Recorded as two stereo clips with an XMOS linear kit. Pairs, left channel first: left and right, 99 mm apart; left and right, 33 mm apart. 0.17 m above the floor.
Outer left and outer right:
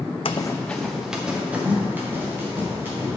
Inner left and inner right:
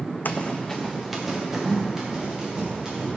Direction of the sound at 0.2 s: 65° left (ahead or behind).